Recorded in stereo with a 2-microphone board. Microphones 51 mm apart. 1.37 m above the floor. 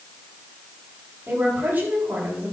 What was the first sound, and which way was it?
A woman speaking, 40° right (ahead or behind).